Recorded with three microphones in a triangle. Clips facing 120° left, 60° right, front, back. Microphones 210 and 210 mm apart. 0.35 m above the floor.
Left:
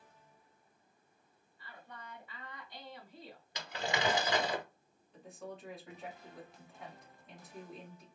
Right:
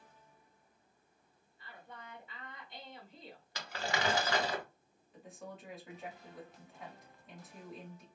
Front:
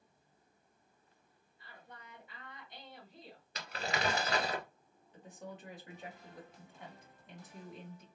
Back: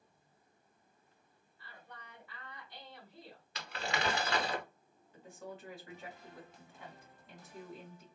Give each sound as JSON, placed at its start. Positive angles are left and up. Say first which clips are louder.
{"t": 1.6, "sound": "a woman speaking", "louder": "even, even", "azimuth_deg": -35, "distance_m": 1.3}
{"t": 3.5, "sound": "crumpling", "louder": "left 1 dB, even", "azimuth_deg": 50, "distance_m": 1.0}
{"t": 5.1, "sound": "a woman speaking", "louder": "left 2 dB, back 1 dB", "azimuth_deg": 25, "distance_m": 1.4}